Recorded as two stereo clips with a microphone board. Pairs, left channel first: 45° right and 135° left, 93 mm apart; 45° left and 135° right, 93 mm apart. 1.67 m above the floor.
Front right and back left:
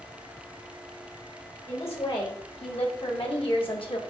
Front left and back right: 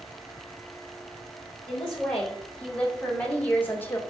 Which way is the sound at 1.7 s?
40° right.